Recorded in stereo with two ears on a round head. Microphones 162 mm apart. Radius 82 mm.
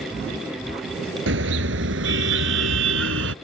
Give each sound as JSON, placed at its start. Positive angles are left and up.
{"t": 1.3, "sound": "a car horn", "side_deg": -80}